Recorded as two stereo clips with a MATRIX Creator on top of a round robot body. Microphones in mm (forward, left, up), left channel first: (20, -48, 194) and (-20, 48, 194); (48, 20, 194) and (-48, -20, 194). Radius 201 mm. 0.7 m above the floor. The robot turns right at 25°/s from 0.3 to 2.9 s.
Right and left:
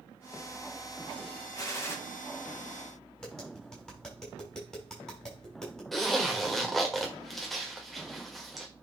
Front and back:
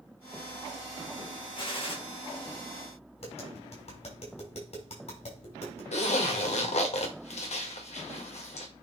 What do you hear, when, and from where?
1.6 s a gunshot: 15° right, 2 m; by 2.0 s 5° right, 2 m
3.2 s tapping: 15° left, 6 m
5.9 s a zipper: 20° left, 1.7 m